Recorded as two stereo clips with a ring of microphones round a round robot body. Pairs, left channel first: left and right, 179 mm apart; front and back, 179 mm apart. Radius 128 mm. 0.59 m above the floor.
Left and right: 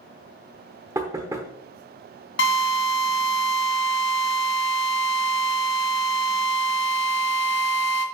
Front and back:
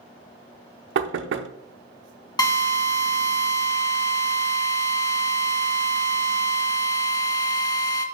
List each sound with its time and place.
0.9 s knocking: 165° right, 0.7 m
2.4 s a drill: 70° left, 2.5 m